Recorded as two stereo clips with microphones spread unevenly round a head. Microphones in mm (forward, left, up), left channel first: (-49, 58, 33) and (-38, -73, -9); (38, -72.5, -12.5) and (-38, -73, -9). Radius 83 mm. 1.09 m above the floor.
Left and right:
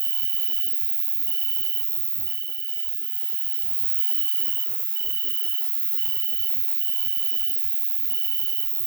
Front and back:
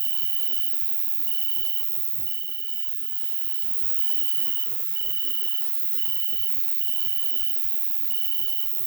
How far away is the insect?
About 0.7 m.